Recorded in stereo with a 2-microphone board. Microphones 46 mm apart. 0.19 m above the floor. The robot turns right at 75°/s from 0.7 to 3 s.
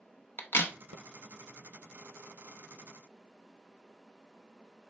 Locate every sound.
0.4 s a crack: 55° left (ahead or behind), 0.6 m